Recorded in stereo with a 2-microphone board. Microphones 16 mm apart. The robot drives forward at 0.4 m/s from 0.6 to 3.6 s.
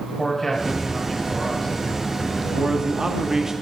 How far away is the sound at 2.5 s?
About 1.1 m.